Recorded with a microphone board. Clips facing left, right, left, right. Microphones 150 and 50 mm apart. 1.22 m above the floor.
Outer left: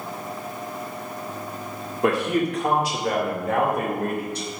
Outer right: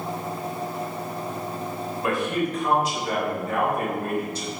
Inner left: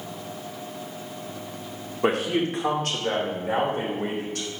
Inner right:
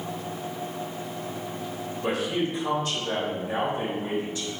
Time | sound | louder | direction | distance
2.0 | a man speaking | outer left 4 dB, inner left 4 dB | 75° left (ahead or behind) | 1.9 m